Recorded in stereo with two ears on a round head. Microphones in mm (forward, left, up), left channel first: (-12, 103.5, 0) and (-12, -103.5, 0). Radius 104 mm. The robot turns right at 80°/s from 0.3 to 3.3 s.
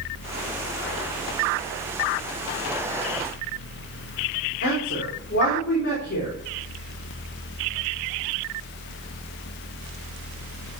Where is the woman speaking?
50° left (ahead or behind), 4 m.